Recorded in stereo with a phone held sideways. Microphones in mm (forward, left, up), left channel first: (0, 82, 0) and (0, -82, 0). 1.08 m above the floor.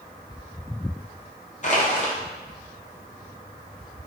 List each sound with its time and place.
1.6 s crushing: 50° left (ahead or behind), 0.5 m